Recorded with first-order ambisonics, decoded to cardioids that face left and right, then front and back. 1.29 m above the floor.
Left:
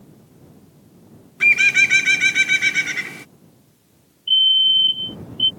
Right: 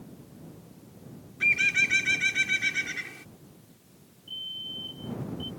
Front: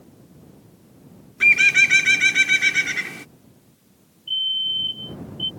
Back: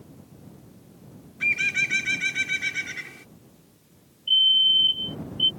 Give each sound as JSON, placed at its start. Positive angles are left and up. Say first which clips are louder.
{"t": 1.4, "sound": "a bird", "louder": "left 9 dB, front 9 dB", "azimuth_deg": 45}
{"t": 4.3, "sound": "a fire alarm", "louder": "left 23 dB, back 5 dB", "azimuth_deg": 110}